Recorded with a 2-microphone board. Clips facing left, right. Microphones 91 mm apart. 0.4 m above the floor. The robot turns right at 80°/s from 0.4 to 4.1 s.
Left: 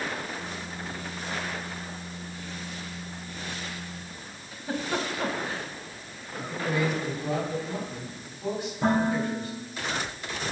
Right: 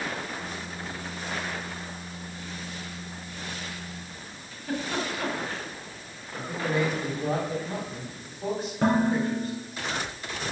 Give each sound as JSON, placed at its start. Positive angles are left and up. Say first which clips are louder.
{"t": 4.5, "sound": "a giggle", "louder": "even", "side_deg": 15, "distance_m": 1.5}
{"t": 6.4, "sound": "a man speaking", "louder": "right 1 dB", "side_deg": -35, "distance_m": 3.0}
{"t": 8.8, "sound": "dishes clattering", "louder": "right 1 dB", "side_deg": -85, "distance_m": 3.5}